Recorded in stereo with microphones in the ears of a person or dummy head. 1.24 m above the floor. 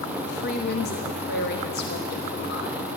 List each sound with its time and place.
0.2 s a woman speaking: 55° left (ahead or behind), 1.0 m